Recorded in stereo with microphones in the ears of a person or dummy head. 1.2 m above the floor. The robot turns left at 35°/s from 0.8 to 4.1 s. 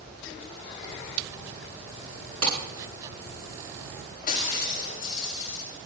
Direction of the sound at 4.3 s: 45° left (ahead or behind).